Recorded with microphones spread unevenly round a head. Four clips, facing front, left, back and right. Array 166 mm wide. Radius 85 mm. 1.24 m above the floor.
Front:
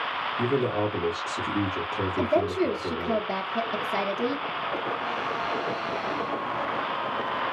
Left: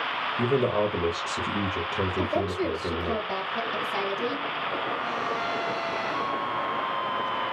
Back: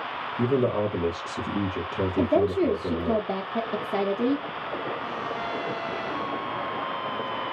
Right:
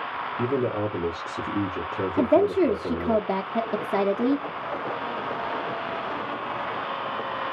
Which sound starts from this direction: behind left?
A man speaking, at 0.4 s.